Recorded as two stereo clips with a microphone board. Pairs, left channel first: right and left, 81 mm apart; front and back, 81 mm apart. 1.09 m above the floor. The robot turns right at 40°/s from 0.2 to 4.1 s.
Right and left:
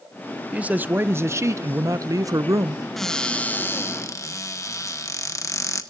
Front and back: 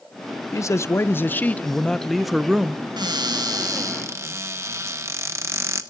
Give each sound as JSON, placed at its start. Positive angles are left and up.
{"t": 0.5, "sound": "a man speaking", "azimuth_deg": 20, "distance_m": 0.6}
{"t": 3.0, "sound": "a cupboard door", "azimuth_deg": -175, "distance_m": 1.2}